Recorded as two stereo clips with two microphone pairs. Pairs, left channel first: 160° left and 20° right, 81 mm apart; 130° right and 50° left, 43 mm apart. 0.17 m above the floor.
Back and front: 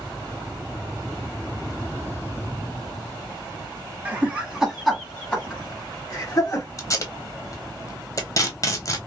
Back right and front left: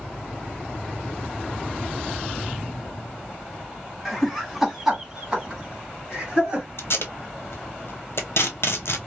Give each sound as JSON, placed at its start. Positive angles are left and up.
{"t": 4.0, "sound": "laughter", "azimuth_deg": -50, "distance_m": 1.2}
{"t": 6.8, "sound": "tape being pulled", "azimuth_deg": -155, "distance_m": 0.8}